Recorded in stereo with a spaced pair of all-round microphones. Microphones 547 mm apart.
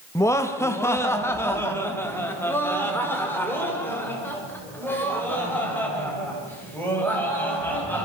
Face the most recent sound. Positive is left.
turn(degrees=5)  # may be behind; listen again after turning